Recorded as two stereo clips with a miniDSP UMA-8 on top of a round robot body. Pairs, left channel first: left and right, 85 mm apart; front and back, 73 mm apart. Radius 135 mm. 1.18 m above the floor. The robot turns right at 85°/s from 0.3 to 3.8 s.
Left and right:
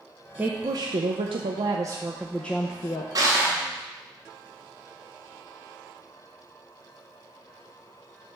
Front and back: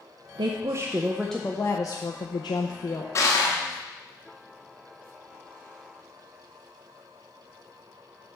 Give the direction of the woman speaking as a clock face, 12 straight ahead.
5 o'clock.